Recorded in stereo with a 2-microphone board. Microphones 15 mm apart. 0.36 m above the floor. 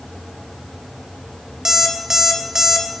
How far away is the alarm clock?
About 0.8 m.